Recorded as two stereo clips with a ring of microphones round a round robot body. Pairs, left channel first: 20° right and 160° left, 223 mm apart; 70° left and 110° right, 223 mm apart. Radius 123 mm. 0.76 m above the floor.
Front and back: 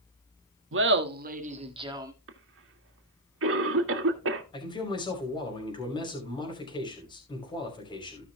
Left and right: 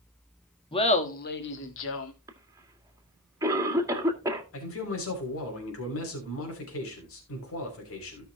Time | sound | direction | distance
0.7 | laughter | 135° left | 1.6 m
2.3 | a cough | 175° left | 1.8 m
4.5 | a man speaking | 45° left | 3 m